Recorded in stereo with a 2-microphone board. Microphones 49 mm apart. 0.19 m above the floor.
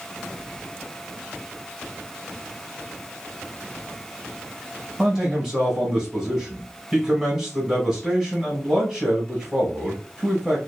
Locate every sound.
5.0 s a man speaking: 5° right (ahead or behind), 1.1 m